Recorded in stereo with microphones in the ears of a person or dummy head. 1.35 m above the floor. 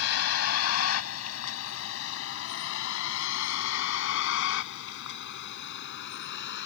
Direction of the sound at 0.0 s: 80° left.